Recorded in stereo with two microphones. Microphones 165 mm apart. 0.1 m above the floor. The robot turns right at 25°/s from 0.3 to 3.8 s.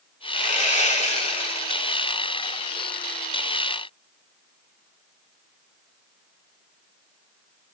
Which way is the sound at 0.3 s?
105° left.